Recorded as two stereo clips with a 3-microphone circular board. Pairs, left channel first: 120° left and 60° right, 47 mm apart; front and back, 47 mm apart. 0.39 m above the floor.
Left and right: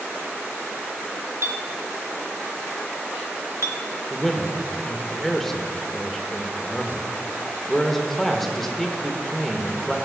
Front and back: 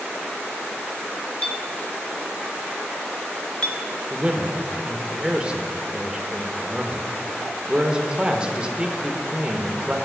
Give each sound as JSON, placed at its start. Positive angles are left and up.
{"t": 1.4, "sound": "a clink", "azimuth_deg": -65, "distance_m": 0.8}
{"t": 4.1, "sound": "a man speaking", "azimuth_deg": -165, "distance_m": 0.8}